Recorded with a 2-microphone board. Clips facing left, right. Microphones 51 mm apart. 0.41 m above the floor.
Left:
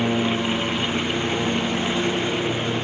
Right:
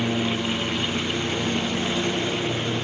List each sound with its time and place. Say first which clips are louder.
0.0 s a lawn mower: left 3 dB; 20° left (ahead or behind); by 2.8 s 15° left (ahead or behind)